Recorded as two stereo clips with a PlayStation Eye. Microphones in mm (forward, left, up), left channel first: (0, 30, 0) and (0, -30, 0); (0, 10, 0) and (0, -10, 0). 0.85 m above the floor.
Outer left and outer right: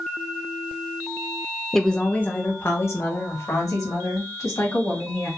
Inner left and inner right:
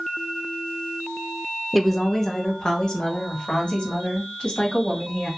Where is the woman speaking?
5° left (ahead or behind), 0.6 m; by 5.3 s 70° left (ahead or behind), 2 m.